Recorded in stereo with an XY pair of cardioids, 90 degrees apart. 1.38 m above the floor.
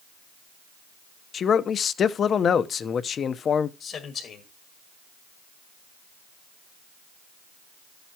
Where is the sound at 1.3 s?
60° left, 0.9 m.